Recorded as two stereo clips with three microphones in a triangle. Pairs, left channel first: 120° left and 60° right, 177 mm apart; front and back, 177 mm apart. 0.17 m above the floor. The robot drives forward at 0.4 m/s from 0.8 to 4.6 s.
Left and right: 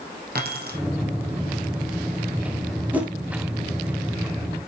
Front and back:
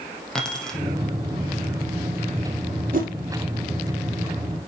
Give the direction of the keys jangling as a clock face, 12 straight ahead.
3 o'clock.